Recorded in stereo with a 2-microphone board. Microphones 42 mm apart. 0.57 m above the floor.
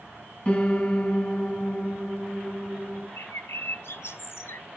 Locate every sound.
0.5 s a piano: 30° left (ahead or behind), 4 m
3.2 s a bird: 80° left, 0.9 m